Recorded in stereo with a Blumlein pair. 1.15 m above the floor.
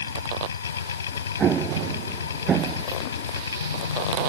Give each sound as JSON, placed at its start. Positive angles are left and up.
{"t": 0.0, "sound": "a machine running", "azimuth_deg": 70}
{"t": 1.4, "sound": "an explosion", "azimuth_deg": -25}